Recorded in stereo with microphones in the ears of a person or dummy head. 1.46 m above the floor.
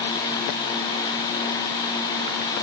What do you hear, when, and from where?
Only background noise.